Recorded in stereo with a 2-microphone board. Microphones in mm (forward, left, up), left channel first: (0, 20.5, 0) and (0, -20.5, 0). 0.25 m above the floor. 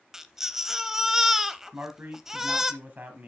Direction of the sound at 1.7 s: 45° right (ahead or behind).